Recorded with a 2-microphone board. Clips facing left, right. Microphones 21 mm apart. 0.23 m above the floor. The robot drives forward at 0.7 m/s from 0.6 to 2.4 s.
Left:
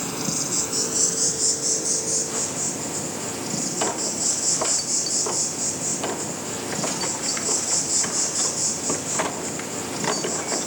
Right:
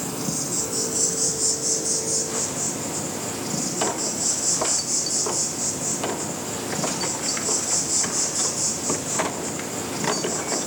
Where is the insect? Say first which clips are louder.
Left 1 dB; 30° left (ahead or behind), 1.0 m; by 10.7 s 15° left (ahead or behind), 2 m.